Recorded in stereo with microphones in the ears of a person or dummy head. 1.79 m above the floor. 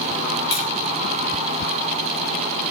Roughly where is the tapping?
Left.